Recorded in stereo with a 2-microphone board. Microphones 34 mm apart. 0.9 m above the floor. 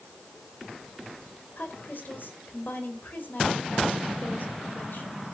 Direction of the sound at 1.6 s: 65° left (ahead or behind).